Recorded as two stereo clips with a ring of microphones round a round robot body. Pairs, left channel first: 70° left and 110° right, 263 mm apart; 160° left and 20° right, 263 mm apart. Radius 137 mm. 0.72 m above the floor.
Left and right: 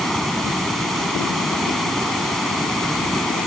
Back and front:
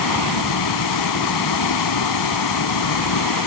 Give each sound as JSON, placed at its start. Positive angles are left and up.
{"t": 0.0, "sound": "running water", "azimuth_deg": 155}